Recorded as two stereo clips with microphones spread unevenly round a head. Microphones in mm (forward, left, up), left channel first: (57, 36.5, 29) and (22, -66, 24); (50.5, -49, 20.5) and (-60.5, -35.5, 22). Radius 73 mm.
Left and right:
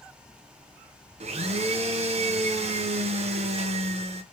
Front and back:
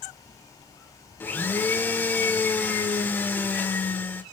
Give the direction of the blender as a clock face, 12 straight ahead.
3 o'clock.